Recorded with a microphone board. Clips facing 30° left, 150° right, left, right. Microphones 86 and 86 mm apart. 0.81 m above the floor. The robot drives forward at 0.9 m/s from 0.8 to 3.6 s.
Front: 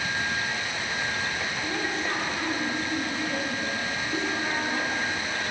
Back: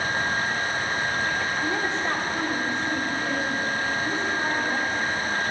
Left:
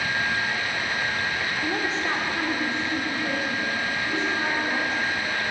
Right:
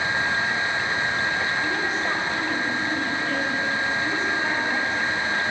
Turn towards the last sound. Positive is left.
turn(degrees=160)